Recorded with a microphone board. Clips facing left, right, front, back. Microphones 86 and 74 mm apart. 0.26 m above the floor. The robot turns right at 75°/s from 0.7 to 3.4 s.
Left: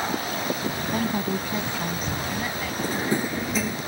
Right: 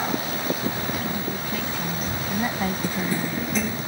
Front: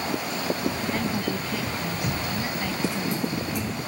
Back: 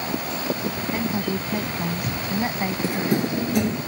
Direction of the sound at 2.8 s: 130° left.